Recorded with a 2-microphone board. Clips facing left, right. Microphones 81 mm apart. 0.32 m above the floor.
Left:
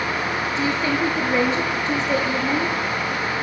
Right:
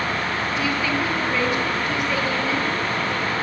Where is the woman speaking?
30° left (ahead or behind), 5 m.